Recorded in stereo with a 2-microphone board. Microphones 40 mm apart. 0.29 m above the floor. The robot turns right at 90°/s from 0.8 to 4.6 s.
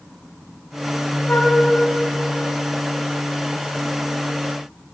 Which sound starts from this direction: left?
A flute, at 1.3 s.